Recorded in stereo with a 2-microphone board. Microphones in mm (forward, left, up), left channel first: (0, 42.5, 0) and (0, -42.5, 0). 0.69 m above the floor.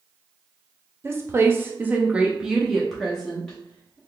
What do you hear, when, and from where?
1.0 s a woman speaking: 30° right (ahead or behind), 0.8 m; by 4.0 s 10° left (ahead or behind), 1.4 m